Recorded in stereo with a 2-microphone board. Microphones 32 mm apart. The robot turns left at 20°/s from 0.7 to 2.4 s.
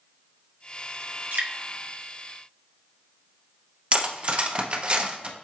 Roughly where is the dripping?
Right.